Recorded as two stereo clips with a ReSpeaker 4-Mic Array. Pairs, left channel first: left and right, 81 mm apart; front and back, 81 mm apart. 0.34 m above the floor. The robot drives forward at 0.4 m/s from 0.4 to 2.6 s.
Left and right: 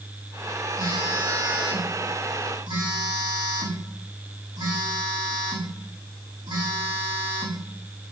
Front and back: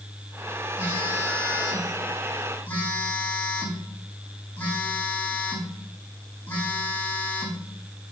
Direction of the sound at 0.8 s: 65° right.